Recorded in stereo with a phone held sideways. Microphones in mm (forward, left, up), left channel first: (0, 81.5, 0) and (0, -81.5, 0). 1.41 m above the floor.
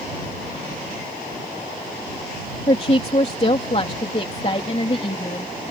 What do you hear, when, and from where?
2.7 s a woman speaking: 40° left (ahead or behind)